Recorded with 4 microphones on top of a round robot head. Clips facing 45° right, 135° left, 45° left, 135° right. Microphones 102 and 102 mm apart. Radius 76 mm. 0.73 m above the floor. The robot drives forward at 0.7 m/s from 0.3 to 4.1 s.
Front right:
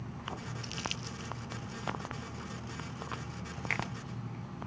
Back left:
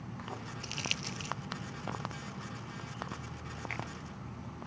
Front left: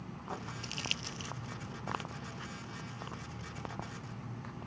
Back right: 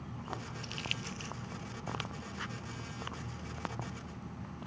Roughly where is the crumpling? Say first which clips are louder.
Front right 1 dB, back right 1 dB; left.